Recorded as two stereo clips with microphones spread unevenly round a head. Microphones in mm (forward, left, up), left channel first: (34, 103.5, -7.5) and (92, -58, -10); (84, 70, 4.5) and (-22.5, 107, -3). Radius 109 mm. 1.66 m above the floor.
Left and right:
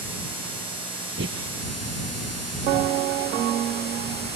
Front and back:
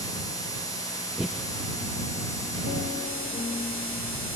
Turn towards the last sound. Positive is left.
turn(degrees=-110)